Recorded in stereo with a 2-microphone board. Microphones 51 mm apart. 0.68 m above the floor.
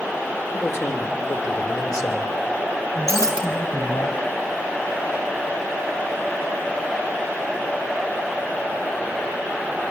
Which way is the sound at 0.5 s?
45° left (ahead or behind).